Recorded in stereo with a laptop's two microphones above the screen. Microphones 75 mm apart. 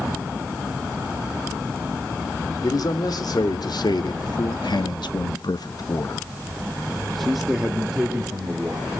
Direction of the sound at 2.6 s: 60° left (ahead or behind).